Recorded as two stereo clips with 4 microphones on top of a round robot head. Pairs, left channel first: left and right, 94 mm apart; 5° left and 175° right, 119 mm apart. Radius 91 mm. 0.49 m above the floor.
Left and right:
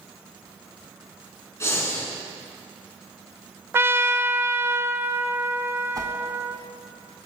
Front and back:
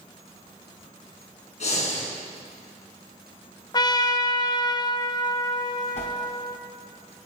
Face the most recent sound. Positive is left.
turn(degrees=-40)